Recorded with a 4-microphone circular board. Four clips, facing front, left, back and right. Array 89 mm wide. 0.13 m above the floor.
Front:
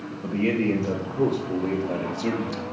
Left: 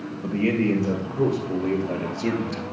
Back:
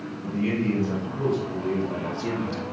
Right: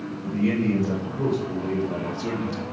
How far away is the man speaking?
About 3.5 m.